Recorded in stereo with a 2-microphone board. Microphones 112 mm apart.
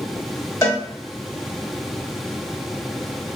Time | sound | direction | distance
0.6 | a cowbell | 25° left (ahead or behind) | 1.1 m